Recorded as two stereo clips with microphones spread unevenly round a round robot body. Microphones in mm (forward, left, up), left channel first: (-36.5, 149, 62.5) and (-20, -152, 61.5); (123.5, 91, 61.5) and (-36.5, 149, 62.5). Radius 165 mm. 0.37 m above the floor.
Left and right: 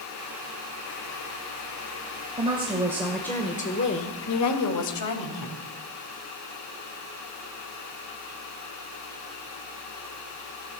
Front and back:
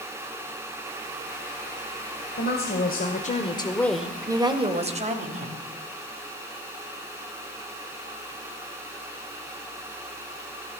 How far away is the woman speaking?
About 2.5 m.